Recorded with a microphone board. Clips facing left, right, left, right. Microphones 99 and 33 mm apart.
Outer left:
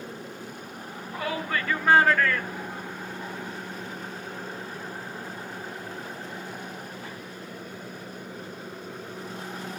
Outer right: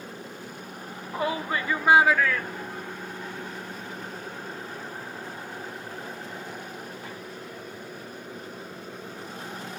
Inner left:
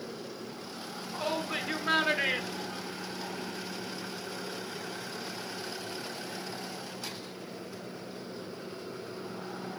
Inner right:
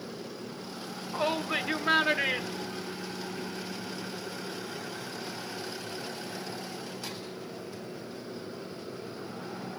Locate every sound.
1.1 s a shout: 30° right (ahead or behind), 1.5 m; by 3.6 s 25° left (ahead or behind), 1.6 m